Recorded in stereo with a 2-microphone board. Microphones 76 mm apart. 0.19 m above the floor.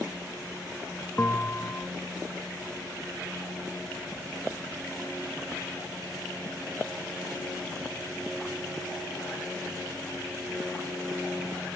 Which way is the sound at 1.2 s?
30° left (ahead or behind).